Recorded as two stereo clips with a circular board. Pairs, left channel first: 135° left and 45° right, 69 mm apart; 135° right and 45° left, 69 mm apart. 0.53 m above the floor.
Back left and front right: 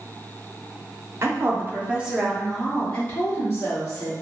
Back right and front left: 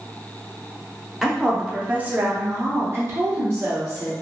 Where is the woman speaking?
35° right, 0.8 m; by 4.1 s 95° left, 1.2 m.